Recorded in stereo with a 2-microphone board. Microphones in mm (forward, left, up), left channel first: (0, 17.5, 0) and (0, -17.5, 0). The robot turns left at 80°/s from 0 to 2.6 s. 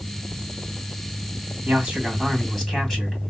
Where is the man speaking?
120° right, 2 m; by 3.3 s 165° left, 2 m.